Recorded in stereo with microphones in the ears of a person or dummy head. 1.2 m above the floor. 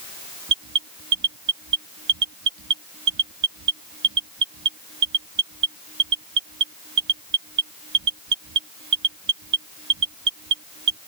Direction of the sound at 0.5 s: 70° right (ahead or behind).